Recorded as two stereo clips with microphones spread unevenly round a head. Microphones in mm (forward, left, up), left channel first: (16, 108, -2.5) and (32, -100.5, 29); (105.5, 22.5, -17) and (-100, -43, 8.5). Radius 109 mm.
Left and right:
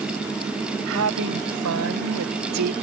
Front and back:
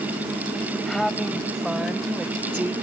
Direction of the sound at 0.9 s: 70° right.